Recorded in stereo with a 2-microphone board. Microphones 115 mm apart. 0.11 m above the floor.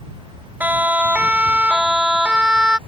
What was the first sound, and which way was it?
A siren, 15° right (ahead or behind).